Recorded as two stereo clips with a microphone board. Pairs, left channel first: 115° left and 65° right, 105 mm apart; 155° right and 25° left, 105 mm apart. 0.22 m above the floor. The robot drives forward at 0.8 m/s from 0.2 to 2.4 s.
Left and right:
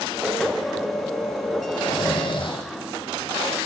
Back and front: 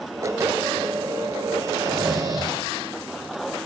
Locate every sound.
1.8 s snoring: 70° left, 4 m; by 2.6 s 75° left, 4 m